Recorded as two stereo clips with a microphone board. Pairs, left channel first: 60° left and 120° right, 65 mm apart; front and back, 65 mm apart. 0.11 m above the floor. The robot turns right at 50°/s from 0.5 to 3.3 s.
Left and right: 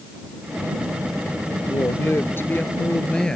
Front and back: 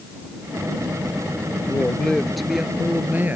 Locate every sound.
1.7 s a woman speaking: 50° left; by 3.4 s 135° left